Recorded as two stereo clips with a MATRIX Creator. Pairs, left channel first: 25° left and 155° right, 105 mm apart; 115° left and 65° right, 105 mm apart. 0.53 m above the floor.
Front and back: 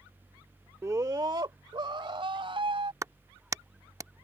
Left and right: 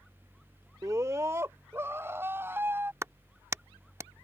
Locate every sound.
0.8 s a scream: 105° right; by 2.9 s 135° right
3.0 s a clap: 115° right